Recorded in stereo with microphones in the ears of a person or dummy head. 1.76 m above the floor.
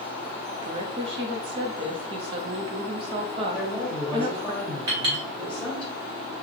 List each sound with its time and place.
0.6 s a woman speaking: 35° right (ahead or behind), 0.7 m
3.5 s a woman speaking: 5° left (ahead or behind), 1.6 m
4.9 s a clink: 25° right (ahead or behind), 1.2 m